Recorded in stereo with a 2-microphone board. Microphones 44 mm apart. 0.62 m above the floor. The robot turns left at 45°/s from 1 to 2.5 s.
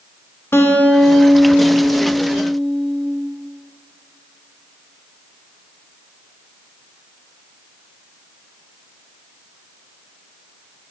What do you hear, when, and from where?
0.5 s a guitar: 75° left, 0.6 m; by 3.1 s 5° left, 0.6 m